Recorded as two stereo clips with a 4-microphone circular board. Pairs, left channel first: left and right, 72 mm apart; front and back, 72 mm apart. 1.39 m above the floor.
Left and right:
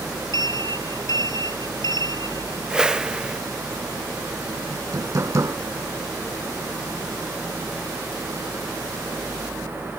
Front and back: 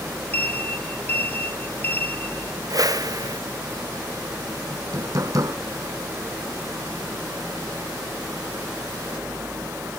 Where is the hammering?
135° right.